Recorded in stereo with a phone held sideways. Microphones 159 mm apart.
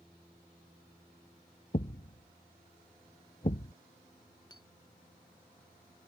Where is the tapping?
25° left (ahead or behind).